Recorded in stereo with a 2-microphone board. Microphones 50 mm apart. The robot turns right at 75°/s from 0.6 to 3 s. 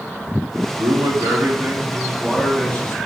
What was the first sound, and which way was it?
A man speaking, 115° right.